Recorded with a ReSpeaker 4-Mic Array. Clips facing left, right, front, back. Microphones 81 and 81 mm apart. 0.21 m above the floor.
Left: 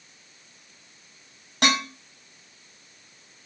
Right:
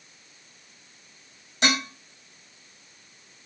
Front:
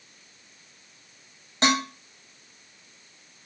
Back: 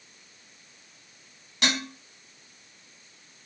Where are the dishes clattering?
60° left, 4.5 m.